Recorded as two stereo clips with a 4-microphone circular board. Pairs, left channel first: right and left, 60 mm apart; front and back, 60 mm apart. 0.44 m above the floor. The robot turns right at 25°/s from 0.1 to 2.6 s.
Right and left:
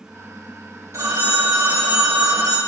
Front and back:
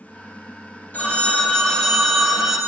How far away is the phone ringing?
About 1.3 m.